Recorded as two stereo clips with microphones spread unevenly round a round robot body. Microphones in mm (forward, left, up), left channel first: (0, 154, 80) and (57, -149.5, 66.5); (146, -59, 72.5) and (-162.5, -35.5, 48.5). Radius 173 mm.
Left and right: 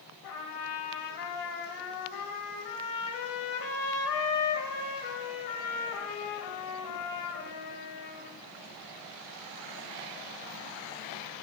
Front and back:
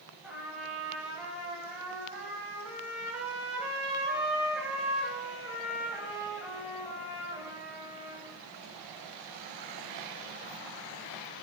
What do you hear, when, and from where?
0.2 s a trumpet: 90° left, 2 m